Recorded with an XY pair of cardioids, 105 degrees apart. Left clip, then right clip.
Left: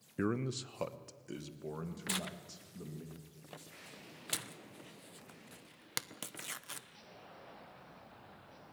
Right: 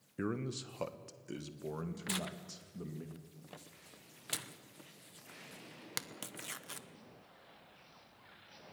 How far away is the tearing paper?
About 0.8 m.